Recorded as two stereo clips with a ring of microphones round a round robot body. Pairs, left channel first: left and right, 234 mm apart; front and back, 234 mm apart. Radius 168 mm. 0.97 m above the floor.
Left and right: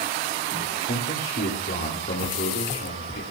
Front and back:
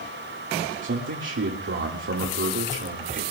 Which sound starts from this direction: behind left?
A man speaking, at 0.8 s.